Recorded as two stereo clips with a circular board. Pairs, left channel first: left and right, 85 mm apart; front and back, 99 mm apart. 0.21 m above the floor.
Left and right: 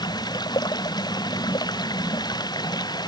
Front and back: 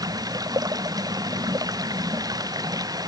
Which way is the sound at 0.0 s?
130° left.